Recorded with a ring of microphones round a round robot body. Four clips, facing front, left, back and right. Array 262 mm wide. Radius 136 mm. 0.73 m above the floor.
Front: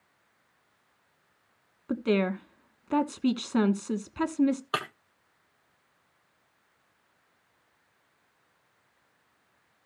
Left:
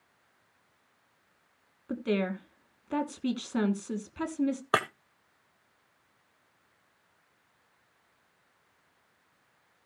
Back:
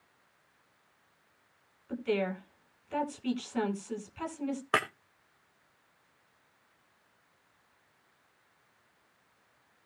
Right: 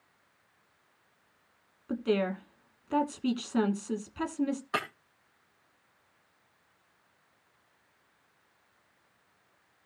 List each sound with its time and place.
1.9 s a woman speaking: 5° left, 2 m
4.7 s breaking glass: 105° left, 1.5 m